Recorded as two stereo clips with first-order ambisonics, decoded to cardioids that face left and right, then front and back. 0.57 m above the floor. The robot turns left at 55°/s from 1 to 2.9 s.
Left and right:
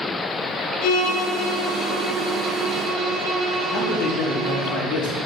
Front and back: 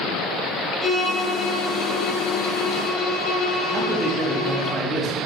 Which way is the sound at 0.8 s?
90° left.